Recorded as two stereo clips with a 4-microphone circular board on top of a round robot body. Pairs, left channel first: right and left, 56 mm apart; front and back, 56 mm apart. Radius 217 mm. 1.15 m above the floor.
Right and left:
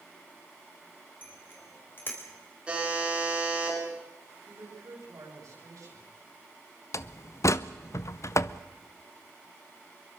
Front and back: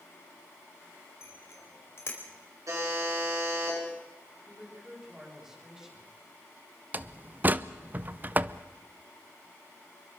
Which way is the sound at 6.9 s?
120° right.